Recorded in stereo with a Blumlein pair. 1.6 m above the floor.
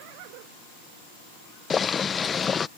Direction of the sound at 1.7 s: 20° left.